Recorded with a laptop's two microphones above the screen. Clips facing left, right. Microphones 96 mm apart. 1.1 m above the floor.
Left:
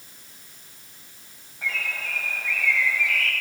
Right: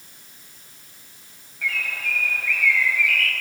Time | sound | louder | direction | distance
1.6 | a bird | right 2 dB | 25° left (ahead or behind) | 1.5 m